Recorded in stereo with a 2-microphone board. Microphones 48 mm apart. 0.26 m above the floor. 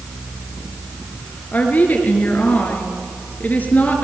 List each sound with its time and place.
1.5 s a woman speaking: 35° left (ahead or behind), 5 m